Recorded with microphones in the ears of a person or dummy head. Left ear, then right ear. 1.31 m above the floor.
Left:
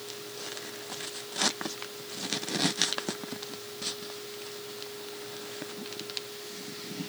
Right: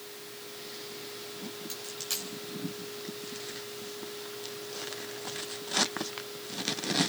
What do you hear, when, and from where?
1.7 s a dropped coin: 80° right, 8.5 m